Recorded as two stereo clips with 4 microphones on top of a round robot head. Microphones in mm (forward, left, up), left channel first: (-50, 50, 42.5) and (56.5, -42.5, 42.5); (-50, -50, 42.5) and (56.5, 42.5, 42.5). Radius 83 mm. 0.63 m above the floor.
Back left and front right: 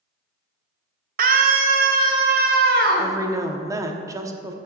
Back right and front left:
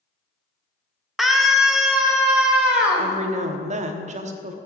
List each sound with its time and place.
1.2 s a scream: 50° right, 1.3 m; by 3.1 s 40° right, 2.5 m
3.0 s a woman speaking: 20° left, 1.1 m